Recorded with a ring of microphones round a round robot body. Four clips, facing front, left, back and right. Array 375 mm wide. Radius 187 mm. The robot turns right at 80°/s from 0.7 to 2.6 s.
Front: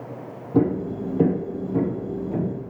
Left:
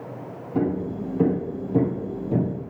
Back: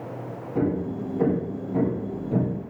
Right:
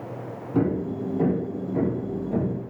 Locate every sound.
0.5 s hammering: 15° right, 7 m; by 2.6 s 135° left, 7 m